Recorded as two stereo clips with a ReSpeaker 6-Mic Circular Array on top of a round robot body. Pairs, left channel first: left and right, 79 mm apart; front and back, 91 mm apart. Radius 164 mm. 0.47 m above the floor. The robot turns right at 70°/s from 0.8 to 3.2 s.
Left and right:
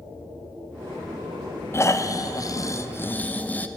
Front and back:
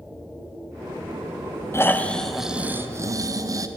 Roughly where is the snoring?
Ahead left.